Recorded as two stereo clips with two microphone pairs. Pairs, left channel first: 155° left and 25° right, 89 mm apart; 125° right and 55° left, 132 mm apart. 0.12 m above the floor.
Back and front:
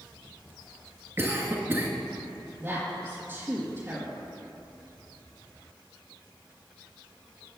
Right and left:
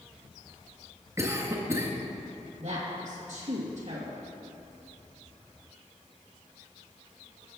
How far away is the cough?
About 1.7 m.